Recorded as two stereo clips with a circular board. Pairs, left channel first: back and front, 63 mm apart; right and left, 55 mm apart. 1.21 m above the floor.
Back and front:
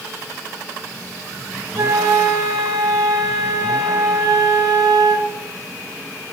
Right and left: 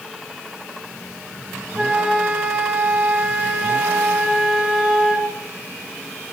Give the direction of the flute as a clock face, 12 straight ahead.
11 o'clock.